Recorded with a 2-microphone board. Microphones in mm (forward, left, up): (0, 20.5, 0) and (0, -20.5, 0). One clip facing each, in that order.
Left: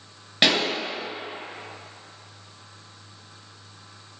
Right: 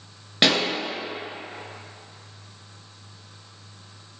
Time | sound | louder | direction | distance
0.4 | a pop | even | 5° right (ahead or behind) | 1.3 m